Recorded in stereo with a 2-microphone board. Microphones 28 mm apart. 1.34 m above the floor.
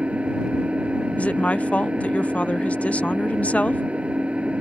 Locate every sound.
0.0 s an engine running: 45° right (ahead or behind)
1.2 s a woman speaking: 50° left (ahead or behind)